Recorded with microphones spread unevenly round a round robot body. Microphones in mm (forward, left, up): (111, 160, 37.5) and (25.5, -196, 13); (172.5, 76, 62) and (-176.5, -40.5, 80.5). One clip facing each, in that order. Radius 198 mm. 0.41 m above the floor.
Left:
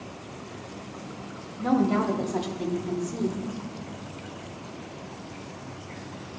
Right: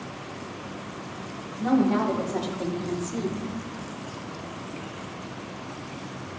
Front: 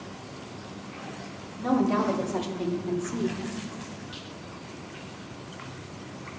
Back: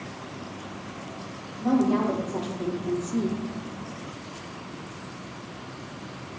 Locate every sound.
1.6 s a woman speaking: 25° left, 1.6 m; by 3.4 s 140° right, 0.9 m